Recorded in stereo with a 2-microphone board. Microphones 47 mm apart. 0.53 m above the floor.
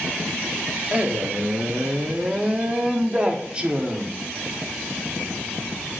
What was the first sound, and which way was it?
A man speaking, 20° right (ahead or behind).